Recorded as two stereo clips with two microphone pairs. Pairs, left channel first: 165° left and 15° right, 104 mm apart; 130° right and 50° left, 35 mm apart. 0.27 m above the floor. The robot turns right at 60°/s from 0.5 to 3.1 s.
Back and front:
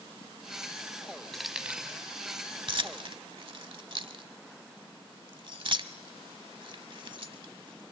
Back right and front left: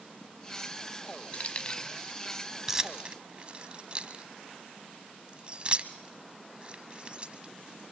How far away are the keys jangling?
About 1.0 m.